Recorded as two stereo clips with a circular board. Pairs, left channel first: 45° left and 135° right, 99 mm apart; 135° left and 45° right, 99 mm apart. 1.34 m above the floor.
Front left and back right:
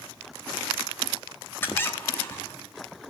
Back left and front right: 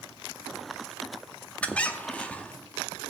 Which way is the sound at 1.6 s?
75° left.